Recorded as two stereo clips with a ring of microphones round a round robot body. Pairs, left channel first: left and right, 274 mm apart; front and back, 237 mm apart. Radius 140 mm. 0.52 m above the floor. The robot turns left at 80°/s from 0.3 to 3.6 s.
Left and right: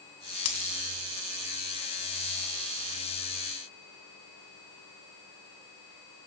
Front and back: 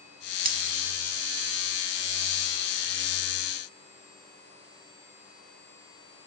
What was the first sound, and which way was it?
A dropped coin, 130° left.